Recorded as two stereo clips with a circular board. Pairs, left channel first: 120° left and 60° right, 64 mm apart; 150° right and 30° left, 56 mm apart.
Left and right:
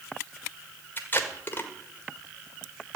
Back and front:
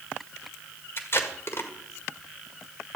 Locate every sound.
1.0 s tape being pulled: 175° left, 1.7 m